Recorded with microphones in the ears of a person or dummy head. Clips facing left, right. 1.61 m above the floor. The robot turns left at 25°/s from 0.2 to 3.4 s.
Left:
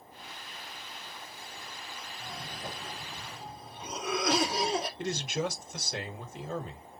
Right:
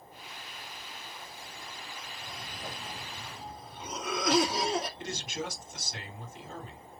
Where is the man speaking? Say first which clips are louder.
Left 5 dB; 55° left (ahead or behind), 1.3 m.